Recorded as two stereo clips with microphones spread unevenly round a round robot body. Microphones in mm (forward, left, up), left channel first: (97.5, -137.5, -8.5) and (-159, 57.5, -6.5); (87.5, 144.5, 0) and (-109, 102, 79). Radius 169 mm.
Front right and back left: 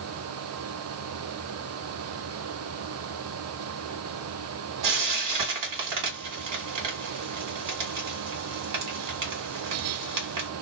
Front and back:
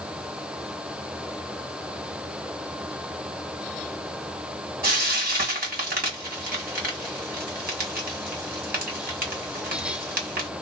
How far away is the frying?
About 1.9 m.